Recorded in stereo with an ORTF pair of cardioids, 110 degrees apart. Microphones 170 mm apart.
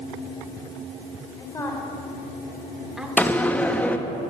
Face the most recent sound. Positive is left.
turn(degrees=10)